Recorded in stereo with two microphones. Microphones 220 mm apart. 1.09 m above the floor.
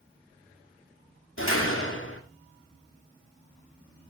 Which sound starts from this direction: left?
A door slam, at 1.4 s.